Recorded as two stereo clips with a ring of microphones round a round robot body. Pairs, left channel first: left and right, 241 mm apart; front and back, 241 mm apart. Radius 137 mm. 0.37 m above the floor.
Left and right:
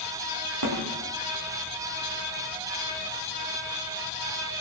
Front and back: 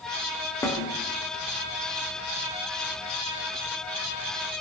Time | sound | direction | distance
0.6 | a snare drum | 75° right | 8.5 m